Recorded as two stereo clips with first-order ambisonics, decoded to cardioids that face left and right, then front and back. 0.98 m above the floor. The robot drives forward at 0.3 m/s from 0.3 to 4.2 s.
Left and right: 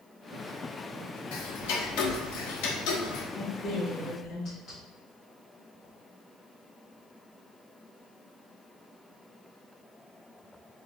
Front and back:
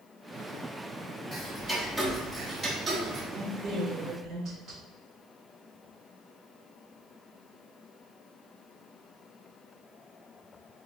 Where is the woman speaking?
130° left, 1.3 m; by 4.8 s 140° left, 1.5 m.